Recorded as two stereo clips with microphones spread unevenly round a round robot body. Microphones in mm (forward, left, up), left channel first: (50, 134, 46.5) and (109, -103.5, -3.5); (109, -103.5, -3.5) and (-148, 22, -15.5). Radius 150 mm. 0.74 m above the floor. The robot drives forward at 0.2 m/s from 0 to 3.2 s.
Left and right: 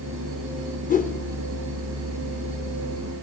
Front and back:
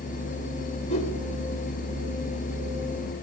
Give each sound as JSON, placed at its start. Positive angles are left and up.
{"t": 0.9, "sound": "a whoosh", "azimuth_deg": 45, "distance_m": 2.5}